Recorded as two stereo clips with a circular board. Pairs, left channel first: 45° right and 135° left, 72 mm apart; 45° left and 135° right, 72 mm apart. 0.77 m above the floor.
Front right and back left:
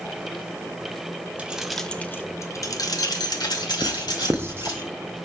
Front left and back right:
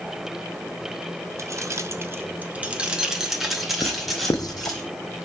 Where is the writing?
75° left, 0.5 m.